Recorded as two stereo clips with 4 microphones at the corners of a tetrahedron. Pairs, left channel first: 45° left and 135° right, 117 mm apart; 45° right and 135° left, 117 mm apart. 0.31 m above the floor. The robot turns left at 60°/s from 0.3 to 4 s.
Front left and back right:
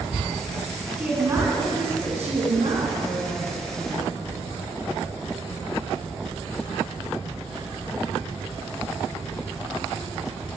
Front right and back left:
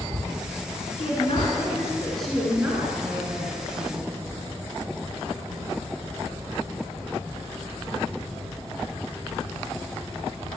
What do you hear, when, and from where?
1.0 s a woman speaking: 55° right, 3 m; by 4.1 s 125° left, 3 m